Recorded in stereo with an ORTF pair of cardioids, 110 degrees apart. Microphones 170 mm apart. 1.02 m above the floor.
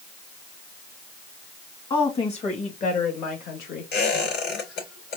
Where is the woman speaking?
30° left, 1.8 m; by 3.9 s 70° left, 1.6 m.